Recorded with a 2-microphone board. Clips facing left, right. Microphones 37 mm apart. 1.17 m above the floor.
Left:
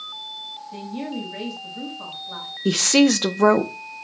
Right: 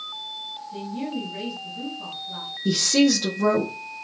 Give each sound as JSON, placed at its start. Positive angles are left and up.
{"t": 0.7, "sound": "a woman speaking", "side_deg": 75, "distance_m": 6.0}
{"t": 2.6, "sound": "a woman speaking", "side_deg": 55, "distance_m": 0.8}